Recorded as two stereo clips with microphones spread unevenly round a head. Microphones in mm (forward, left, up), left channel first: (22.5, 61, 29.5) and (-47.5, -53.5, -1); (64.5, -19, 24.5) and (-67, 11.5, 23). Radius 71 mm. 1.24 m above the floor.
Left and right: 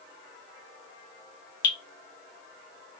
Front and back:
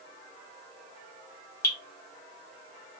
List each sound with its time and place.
1.6 s dripping: 55° left, 1.1 m